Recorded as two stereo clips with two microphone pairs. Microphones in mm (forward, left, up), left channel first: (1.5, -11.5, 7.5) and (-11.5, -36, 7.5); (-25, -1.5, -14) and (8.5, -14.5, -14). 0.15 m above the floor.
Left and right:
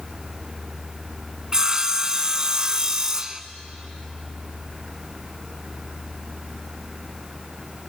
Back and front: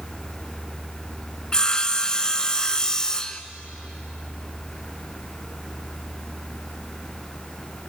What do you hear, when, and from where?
1.5 s sawing: 160° right, 0.5 m